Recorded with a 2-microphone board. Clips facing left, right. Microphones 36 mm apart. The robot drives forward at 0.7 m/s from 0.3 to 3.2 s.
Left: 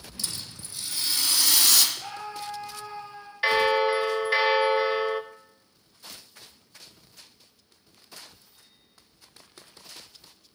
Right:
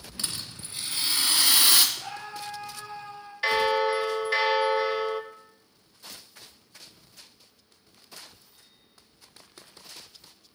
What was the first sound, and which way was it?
A rattle, 45° right (ahead or behind).